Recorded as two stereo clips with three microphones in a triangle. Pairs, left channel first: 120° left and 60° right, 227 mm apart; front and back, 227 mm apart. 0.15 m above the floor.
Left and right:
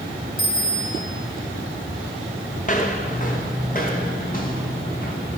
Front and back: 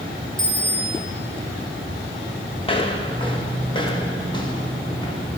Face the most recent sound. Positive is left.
turn(degrees=70)